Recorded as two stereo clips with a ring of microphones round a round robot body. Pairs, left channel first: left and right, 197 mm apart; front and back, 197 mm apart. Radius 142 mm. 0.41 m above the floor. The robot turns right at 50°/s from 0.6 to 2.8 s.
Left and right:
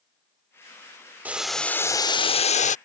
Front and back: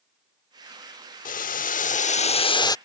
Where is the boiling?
10° right; by 2.8 s 65° left.